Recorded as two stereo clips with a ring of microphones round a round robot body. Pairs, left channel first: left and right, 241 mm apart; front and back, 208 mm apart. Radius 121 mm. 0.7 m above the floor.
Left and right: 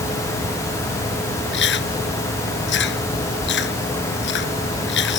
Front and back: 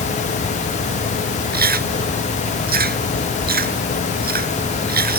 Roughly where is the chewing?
Behind left.